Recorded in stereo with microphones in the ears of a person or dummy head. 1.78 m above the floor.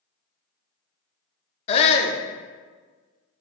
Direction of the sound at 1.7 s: 35° left (ahead or behind).